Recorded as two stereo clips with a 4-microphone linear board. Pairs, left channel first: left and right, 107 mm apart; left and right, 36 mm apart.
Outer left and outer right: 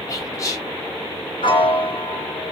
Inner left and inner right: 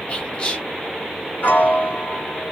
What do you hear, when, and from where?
0.1 s whispering: 30° left (ahead or behind), 0.8 m
1.4 s a piano: 50° left (ahead or behind), 0.8 m